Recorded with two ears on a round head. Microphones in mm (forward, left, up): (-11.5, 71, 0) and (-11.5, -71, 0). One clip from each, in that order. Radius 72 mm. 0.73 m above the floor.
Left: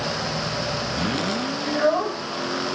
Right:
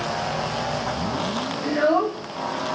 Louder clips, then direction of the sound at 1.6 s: Right 1 dB; 80° right.